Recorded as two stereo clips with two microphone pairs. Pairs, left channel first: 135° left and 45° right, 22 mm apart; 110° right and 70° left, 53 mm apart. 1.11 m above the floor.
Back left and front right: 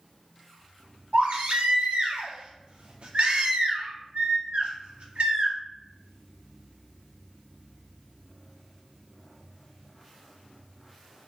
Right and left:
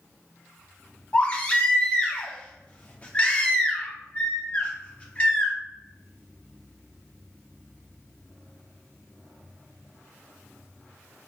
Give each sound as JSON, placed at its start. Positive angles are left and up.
{"t": 1.1, "sound": "a baby crying", "azimuth_deg": -45, "distance_m": 0.9}